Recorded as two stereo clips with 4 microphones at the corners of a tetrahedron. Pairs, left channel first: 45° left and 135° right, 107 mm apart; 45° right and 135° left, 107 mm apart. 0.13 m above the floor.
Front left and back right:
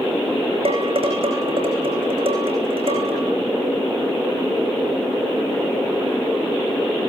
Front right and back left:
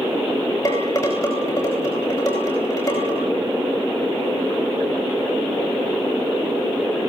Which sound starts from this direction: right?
Dishes clattering, at 0.7 s.